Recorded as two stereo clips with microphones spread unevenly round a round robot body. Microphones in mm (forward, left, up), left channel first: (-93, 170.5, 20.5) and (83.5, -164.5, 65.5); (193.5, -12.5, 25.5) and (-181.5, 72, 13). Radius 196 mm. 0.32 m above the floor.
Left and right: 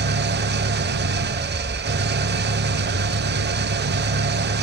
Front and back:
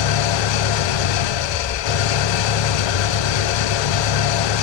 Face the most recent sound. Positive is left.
turn(degrees=5)